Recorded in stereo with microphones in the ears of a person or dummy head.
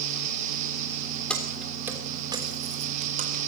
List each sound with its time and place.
1.3 s keys jangling: 5° left (ahead or behind), 3.5 m; by 3.4 s 45° right (ahead or behind), 4 m